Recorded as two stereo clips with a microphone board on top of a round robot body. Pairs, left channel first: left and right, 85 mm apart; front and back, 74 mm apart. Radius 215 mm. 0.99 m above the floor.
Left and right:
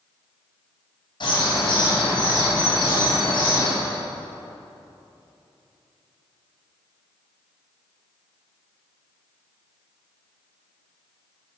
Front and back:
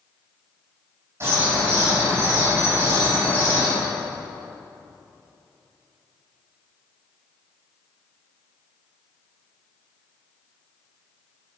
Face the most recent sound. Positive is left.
turn(degrees=120)